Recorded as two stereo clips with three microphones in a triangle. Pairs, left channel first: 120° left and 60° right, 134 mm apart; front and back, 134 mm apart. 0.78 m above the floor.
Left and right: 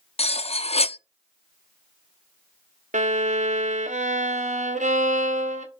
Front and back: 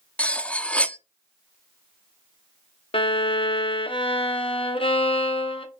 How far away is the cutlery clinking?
About 0.5 m.